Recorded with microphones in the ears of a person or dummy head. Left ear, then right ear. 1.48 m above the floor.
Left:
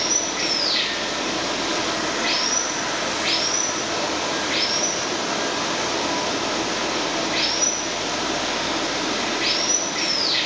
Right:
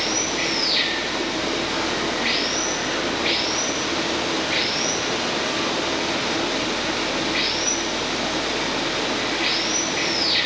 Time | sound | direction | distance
0.0 | running water | 35° left (ahead or behind) | 7.5 m